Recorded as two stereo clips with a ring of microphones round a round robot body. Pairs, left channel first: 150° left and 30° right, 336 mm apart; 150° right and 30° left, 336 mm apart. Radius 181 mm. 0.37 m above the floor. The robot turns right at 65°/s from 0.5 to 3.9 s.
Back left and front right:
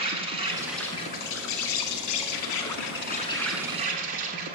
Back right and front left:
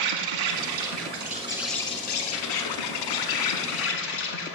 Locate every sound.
0.0 s an insect: 45° left, 0.9 m; by 4.6 s 95° right, 0.9 m